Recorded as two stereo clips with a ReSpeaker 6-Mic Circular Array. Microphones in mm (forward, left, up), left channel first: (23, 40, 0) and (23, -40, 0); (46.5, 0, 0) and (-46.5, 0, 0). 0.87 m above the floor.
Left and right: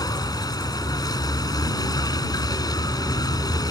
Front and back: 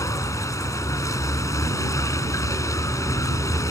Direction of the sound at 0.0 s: 55° left.